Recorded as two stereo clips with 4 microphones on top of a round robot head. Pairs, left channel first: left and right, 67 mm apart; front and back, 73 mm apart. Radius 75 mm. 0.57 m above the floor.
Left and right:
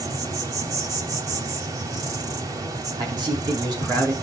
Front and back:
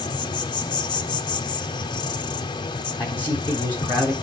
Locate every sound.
0.0 s an insect: 40° right, 0.8 m
3.0 s a man speaking: 70° right, 4.5 m